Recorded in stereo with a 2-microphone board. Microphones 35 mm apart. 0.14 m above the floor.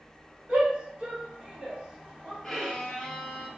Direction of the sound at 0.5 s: 40° right (ahead or behind).